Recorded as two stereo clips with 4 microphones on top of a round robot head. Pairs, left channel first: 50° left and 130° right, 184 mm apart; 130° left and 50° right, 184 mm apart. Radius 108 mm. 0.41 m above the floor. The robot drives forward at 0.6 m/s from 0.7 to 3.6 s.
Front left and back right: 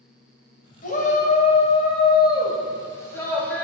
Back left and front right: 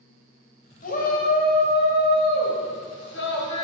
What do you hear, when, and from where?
0.8 s a shout: 90° left, 2 m; by 3.6 s 130° left, 2.5 m